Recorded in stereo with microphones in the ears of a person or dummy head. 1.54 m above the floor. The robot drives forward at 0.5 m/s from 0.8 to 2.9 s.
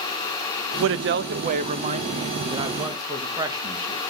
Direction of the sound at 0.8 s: 70° right (ahead or behind).